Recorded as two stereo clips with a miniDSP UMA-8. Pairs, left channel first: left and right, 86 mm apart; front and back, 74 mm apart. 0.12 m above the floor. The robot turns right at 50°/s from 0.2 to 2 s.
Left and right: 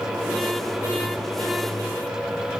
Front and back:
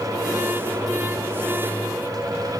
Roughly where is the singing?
No singing in this recording.